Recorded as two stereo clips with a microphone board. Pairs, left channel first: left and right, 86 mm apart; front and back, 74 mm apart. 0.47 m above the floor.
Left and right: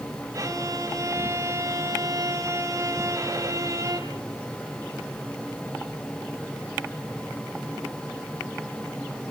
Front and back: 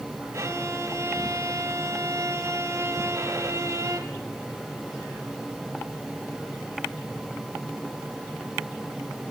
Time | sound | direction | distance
0.3 | a violin | 135° right | 3 m